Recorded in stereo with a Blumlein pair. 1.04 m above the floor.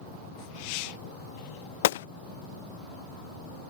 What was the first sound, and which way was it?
A gunshot, 55° left.